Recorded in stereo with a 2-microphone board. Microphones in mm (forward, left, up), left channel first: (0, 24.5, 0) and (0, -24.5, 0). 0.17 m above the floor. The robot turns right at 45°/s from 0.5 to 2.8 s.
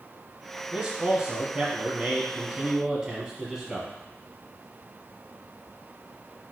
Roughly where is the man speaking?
Centre.